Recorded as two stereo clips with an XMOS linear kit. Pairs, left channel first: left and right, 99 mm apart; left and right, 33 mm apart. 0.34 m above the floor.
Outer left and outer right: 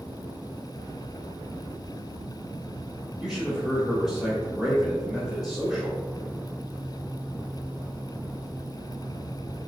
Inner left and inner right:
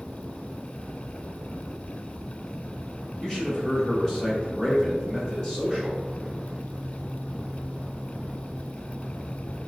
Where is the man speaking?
5° right (ahead or behind), 1.2 m.